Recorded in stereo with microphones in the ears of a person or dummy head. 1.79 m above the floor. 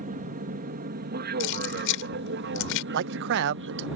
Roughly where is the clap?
I don't hear a clap.